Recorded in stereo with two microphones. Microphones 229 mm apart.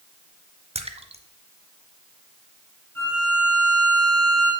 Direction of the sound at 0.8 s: 25° right (ahead or behind).